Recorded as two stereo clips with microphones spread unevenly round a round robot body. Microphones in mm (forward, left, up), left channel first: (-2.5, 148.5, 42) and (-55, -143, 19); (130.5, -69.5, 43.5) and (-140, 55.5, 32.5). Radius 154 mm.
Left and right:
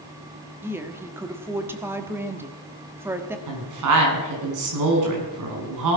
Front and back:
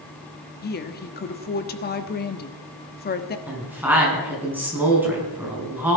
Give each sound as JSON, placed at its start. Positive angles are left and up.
{"t": 0.6, "sound": "a woman speaking", "azimuth_deg": -35, "distance_m": 1.3}
{"t": 3.5, "sound": "a woman speaking", "azimuth_deg": -120, "distance_m": 5.5}